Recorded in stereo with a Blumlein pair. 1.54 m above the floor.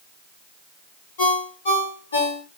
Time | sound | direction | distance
1.2 | a ringtone | 60° left | 1.2 m